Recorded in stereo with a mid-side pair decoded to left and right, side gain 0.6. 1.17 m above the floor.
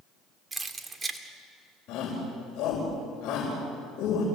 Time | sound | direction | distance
0.5 | keys jangling | 20° right | 2 m
1.9 | a shout | 65° left | 5 m